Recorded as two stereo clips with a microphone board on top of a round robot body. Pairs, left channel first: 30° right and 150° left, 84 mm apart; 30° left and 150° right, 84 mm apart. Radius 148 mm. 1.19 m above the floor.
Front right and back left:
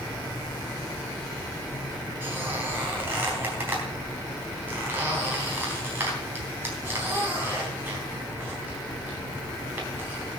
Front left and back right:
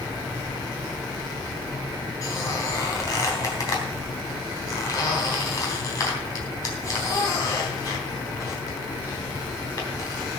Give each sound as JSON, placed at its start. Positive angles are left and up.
{"t": 2.2, "sound": "a squeak", "azimuth_deg": 80, "distance_m": 3.5}